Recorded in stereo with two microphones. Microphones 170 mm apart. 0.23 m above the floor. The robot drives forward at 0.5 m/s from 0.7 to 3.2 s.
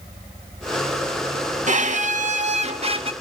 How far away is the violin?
About 0.7 m.